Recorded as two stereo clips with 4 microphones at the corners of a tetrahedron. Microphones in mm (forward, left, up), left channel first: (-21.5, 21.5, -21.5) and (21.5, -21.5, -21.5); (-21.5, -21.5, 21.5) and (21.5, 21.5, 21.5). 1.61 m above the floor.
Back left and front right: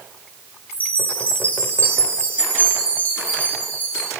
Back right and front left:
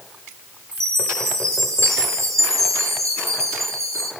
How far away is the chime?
About 5.5 m.